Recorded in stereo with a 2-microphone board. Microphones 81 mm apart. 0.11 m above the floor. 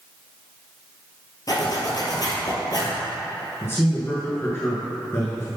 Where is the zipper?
45° left (ahead or behind), 1.5 m.